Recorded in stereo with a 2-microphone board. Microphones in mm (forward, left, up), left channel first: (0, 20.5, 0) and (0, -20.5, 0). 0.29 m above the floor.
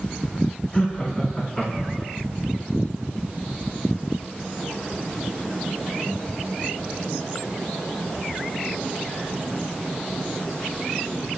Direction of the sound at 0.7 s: 35° left (ahead or behind).